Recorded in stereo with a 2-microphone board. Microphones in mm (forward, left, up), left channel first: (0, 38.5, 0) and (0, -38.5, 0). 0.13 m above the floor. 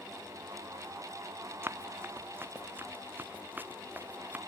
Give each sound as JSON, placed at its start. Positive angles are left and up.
{"t": 1.6, "sound": "running footsteps", "side_deg": -30}